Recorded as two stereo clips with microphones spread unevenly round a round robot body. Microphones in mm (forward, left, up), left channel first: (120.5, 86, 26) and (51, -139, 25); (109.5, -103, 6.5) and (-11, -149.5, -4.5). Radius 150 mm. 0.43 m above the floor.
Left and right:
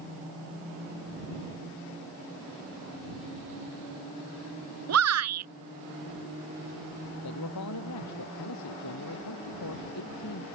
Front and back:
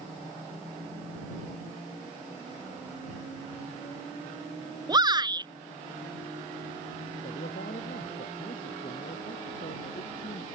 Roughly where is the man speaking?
Left.